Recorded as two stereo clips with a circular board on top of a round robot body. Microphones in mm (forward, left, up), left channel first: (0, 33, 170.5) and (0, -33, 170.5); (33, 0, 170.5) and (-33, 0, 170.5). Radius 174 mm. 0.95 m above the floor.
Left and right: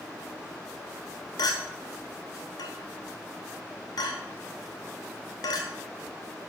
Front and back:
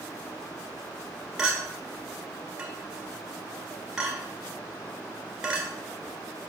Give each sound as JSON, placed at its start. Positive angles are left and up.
{"t": 1.4, "sound": "a clink", "azimuth_deg": 100, "distance_m": 1.2}